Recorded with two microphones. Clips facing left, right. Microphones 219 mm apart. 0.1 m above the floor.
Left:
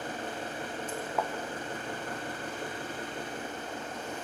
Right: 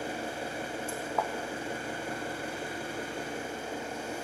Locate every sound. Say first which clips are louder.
0.0 s an engine running: right 2 dB; 10° right (ahead or behind), 4.5 m
1.2 s a thud: even; 5° left (ahead or behind), 2.5 m